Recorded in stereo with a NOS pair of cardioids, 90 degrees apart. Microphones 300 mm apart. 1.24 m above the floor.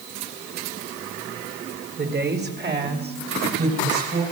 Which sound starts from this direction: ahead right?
A woman speaking, at 2.0 s.